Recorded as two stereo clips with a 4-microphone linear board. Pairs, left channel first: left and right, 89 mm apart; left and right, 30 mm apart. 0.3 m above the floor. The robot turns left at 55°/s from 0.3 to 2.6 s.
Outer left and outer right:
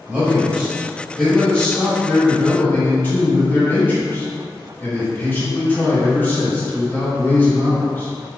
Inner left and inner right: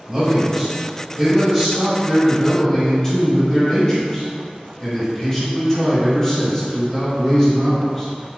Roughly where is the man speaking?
Centre.